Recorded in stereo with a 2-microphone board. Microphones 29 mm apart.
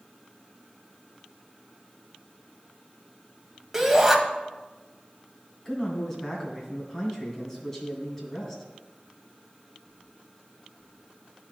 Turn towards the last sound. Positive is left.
turn(degrees=15)  # may be behind; listen again after turning